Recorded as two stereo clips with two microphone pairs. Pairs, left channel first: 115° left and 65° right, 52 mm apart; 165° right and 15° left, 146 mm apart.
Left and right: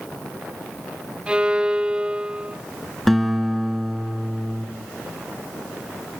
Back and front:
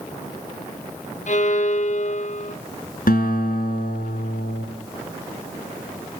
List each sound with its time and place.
1.3 s a violin: 135° right, 0.6 m
3.1 s a guitar: 160° right, 2.5 m